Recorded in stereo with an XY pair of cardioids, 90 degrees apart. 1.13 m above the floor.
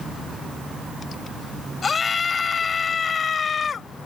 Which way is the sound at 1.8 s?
45° left.